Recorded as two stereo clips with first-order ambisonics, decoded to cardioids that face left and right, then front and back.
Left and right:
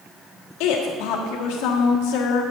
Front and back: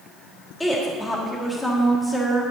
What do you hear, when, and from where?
0.6 s a woman speaking: 80° left, 1.3 m